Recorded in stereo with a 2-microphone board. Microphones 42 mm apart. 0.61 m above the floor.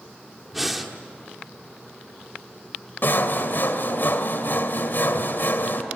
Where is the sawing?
55° left (ahead or behind), 1.8 m.